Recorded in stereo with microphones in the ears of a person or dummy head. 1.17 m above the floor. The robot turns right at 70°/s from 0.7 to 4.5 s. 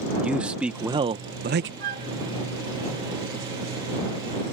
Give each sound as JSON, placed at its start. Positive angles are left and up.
{"t": 0.2, "sound": "a man speaking", "azimuth_deg": -175}
{"t": 1.8, "sound": "a flute", "side_deg": -65}